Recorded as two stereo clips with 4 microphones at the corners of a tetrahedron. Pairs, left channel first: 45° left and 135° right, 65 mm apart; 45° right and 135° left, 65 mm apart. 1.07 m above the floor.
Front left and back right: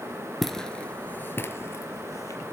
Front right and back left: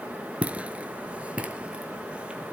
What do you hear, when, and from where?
0.4 s footsteps: 130° left, 1.0 m; by 2.4 s 65° left, 1.9 m